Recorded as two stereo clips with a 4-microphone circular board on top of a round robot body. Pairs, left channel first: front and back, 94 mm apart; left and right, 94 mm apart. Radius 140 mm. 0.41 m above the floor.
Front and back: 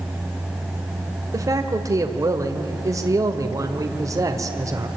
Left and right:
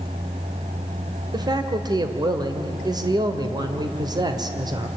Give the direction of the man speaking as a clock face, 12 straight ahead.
4 o'clock.